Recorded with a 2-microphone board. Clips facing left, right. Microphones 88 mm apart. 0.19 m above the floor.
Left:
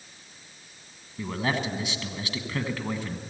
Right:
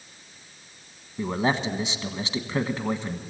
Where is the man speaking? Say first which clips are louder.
Right 4 dB; 25° right (ahead or behind), 1.2 m.